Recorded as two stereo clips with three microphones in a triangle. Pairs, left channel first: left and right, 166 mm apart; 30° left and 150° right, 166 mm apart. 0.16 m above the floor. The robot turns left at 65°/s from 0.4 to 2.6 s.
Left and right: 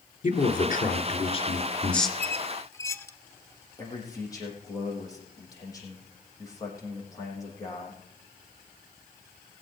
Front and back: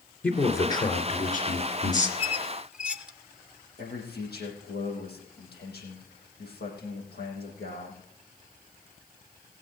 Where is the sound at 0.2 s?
110° left, 2.5 m; by 2.1 s straight ahead, 2.5 m.